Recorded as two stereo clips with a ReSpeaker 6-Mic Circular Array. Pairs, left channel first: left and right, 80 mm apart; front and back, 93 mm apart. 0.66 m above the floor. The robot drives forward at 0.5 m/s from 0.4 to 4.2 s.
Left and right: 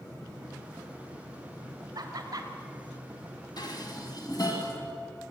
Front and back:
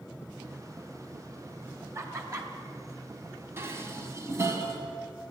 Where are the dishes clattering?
120° left, 3 m; by 4.8 s 125° left, 3 m.